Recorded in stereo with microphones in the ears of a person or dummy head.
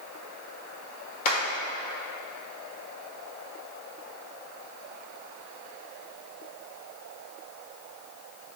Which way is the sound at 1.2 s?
45° left (ahead or behind).